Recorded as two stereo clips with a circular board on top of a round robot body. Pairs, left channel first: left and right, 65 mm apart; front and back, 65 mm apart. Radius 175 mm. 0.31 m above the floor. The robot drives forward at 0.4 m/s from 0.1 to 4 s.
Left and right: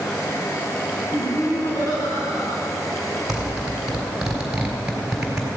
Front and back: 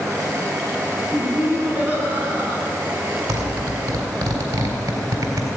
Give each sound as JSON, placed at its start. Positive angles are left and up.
{"t": 1.1, "sound": "laughter", "azimuth_deg": 115, "distance_m": 5.5}
{"t": 3.3, "sound": "a zipper", "azimuth_deg": -170, "distance_m": 3.5}